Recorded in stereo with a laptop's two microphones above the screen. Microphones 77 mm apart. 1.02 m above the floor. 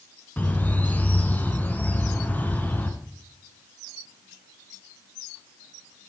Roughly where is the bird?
Left.